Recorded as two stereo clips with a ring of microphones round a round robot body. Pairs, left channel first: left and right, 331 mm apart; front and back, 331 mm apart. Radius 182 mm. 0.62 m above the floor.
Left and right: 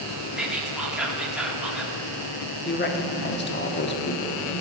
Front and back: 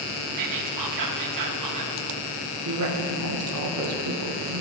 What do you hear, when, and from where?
0.4 s whispering: 175° right, 1.0 m
2.6 s a woman speaking: 140° left, 1.2 m